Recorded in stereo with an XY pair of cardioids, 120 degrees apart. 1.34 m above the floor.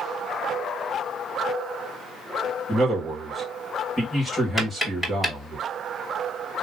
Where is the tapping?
Straight ahead, 2.5 m.